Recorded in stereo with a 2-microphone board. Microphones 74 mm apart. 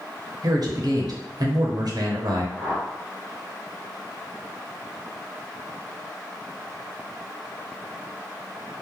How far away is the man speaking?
About 0.6 m.